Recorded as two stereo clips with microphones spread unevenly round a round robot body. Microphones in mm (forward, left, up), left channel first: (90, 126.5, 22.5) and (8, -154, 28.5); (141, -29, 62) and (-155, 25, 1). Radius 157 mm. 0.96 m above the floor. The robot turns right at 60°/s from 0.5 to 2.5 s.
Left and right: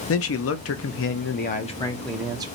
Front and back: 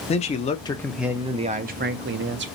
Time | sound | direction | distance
0.1 | a man speaking | 65° left | 0.6 m